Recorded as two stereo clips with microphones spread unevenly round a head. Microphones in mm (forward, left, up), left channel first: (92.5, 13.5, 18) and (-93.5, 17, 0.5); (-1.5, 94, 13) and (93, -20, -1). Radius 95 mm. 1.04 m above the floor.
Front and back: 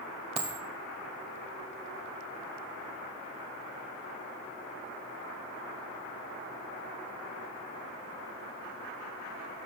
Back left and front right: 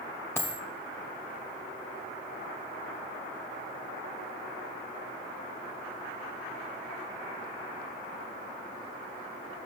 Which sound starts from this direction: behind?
A dropped coin, at 0.4 s.